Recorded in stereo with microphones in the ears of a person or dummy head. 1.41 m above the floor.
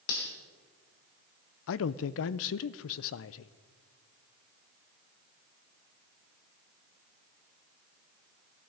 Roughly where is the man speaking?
Left.